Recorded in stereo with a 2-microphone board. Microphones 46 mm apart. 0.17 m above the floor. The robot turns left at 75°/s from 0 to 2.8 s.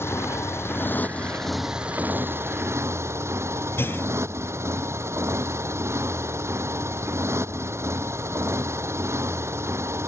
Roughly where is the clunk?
Left.